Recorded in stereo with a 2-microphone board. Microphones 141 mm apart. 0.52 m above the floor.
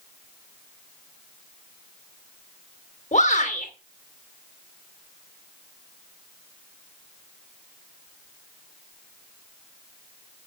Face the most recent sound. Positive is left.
turn(degrees=55)  # may be behind; listen again after turning